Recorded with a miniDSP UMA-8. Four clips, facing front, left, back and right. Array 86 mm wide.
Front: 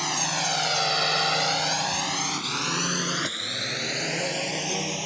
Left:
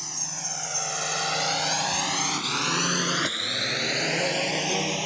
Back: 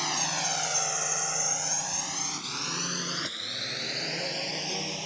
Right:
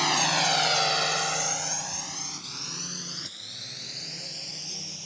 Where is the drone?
80° right; by 5.1 s 70° left.